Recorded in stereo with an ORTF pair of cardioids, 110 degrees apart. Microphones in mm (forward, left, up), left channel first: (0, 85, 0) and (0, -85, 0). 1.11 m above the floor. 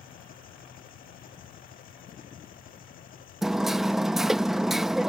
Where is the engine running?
60° left.